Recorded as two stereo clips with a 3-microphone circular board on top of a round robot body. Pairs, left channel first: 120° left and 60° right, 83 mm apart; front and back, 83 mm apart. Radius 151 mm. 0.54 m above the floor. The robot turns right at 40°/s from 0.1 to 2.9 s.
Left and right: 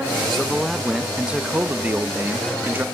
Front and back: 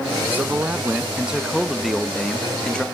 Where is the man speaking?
155° right, 0.8 m; by 2.9 s 55° right, 0.8 m.